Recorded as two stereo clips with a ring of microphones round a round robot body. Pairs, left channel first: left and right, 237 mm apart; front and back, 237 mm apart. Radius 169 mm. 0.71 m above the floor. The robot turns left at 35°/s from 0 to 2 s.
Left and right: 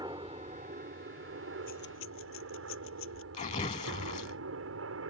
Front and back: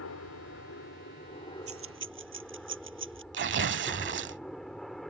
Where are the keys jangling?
155° left; by 3.2 s 145° left.